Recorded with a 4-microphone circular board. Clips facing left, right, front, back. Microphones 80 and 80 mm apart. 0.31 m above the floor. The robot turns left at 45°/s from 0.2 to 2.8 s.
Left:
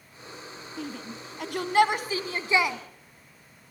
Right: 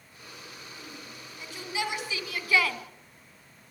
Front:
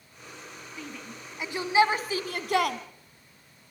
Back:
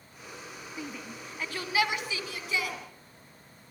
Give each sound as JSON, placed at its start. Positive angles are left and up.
{"t": 0.8, "sound": "a shout", "azimuth_deg": 105, "distance_m": 2.0}